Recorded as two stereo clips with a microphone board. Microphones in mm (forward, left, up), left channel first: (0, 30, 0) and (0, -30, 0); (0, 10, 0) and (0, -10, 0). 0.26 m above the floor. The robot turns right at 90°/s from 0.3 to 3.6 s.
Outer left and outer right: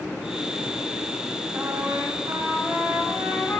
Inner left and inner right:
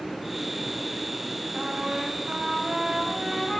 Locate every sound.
1.5 s a trumpet: 140° right, 9 m; by 3.6 s 45° left, 9 m